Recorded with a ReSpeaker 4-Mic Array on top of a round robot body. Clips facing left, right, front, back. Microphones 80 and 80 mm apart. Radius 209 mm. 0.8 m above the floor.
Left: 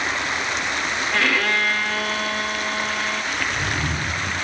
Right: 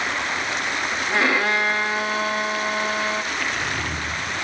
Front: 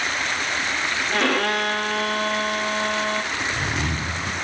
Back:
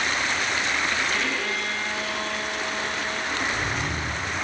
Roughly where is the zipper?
Ahead.